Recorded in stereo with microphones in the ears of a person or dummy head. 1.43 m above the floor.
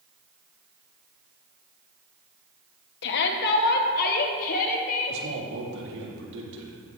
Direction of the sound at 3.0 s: 75° left (ahead or behind).